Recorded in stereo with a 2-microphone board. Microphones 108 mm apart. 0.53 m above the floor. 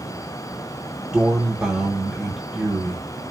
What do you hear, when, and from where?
1.1 s a man speaking: 10° right (ahead or behind), 1.5 m